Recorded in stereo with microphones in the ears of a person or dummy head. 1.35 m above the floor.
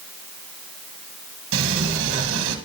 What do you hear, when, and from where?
1.5 s a sliding door: 70° right (ahead or behind), 1.2 m